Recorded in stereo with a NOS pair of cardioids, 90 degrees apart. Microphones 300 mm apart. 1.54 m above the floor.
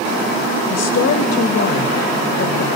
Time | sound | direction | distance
0.7 | a woman speaking | 55° left | 3.5 m